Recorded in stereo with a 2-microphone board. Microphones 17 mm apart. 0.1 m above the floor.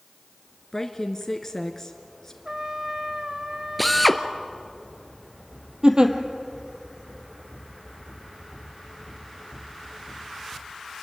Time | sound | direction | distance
0.7 | a woman speaking | 25° left (ahead or behind) | 1.3 m
2.5 | a trumpet | 30° right (ahead or behind) | 1.2 m
3.8 | a drill | 5° left (ahead or behind) | 1.0 m
5.8 | a giggle | 45° right (ahead or behind) | 1.8 m